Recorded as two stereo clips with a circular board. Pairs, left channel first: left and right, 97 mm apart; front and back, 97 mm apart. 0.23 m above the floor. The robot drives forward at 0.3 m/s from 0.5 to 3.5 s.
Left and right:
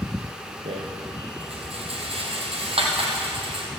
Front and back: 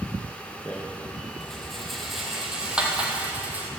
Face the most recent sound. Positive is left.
turn(degrees=-105)